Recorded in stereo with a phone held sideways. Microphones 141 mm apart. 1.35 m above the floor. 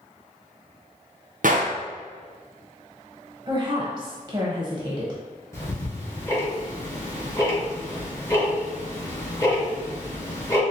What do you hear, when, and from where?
1.4 s a gunshot: 70° right (ahead or behind), 0.5 m
3.5 s a woman speaking: 30° right (ahead or behind), 0.7 m
5.5 s ticking: 20° left (ahead or behind), 1.1 m